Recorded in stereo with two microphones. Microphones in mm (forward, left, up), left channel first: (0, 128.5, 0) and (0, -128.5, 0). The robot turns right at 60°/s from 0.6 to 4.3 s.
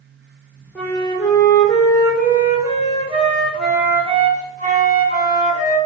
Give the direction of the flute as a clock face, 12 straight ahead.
12 o'clock.